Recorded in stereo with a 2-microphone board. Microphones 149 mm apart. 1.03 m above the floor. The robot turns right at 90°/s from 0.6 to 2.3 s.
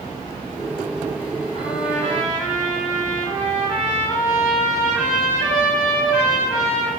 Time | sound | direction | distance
1.5 | a trumpet | 120° left | 1.6 m